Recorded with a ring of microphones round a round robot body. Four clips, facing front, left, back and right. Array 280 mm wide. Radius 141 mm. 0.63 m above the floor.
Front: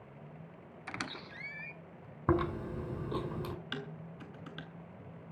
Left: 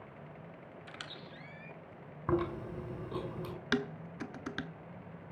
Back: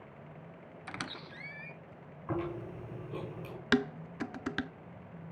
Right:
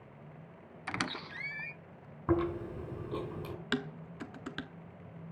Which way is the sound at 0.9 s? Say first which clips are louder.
Right 14 dB, front 1 dB; 90° right.